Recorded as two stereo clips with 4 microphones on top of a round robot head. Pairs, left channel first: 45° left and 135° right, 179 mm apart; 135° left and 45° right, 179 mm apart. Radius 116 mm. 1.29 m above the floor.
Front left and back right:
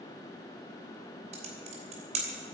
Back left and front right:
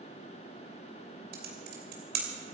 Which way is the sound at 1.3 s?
80° right.